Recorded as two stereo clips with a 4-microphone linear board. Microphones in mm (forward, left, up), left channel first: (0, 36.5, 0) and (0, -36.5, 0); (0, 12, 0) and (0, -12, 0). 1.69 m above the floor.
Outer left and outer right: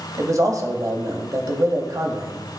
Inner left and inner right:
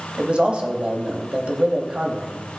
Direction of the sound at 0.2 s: 50° right (ahead or behind).